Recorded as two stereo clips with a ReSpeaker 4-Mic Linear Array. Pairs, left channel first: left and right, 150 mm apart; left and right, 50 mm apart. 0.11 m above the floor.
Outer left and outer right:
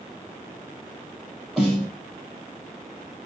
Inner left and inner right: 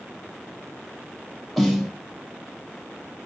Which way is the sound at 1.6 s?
5° right (ahead or behind).